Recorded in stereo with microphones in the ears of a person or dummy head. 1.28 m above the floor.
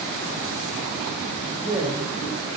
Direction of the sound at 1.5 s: 15° right (ahead or behind).